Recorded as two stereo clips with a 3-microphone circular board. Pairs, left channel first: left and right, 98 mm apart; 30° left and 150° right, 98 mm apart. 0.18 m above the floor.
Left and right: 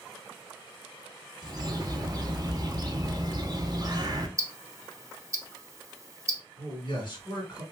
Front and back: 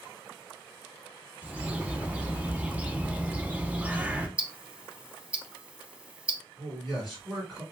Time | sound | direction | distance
1.4 | a bird | 80° right | 0.5 m
4.4 | ticking | 85° right | 0.5 m
6.6 | a man speaking | 115° left | 1.6 m